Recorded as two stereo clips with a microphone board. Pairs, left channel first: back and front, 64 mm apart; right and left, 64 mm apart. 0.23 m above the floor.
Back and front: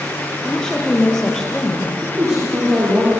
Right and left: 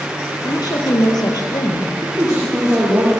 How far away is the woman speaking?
About 4.5 m.